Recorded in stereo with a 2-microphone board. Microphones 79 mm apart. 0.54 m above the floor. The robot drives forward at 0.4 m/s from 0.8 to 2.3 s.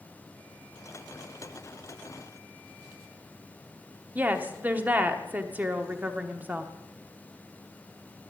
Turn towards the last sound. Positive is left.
turn(degrees=-20)  # may be behind; listen again after turning